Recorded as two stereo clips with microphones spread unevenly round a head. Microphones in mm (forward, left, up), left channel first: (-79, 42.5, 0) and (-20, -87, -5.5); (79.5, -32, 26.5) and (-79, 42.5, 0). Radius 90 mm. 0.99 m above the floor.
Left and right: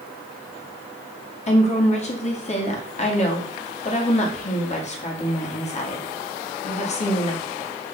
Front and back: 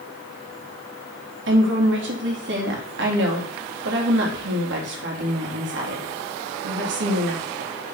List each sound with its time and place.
1.5 s a woman speaking: 155° left, 2.5 m